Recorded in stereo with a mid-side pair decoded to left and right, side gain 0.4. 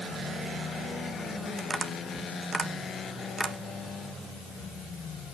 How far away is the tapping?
About 1.7 m.